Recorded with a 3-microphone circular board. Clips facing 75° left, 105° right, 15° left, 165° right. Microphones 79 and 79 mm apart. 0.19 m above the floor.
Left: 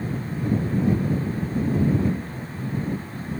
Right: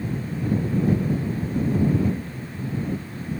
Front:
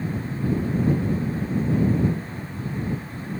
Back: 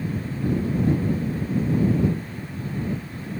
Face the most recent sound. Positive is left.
No sound to turn to.